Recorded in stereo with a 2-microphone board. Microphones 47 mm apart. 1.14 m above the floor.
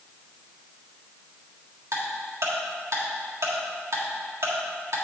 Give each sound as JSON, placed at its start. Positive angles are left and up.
{"t": 1.9, "sound": "ticking", "side_deg": -75, "distance_m": 1.5}